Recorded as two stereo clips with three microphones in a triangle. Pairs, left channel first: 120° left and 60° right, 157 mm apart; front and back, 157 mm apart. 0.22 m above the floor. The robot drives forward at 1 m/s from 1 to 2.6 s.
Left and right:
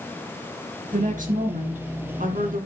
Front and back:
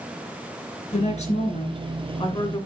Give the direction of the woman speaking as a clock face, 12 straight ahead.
1 o'clock.